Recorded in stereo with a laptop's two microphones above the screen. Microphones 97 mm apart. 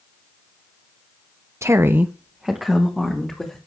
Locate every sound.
1.6 s a woman speaking: 25° right (ahead or behind), 0.6 m; by 3.6 s 5° left (ahead or behind), 2.5 m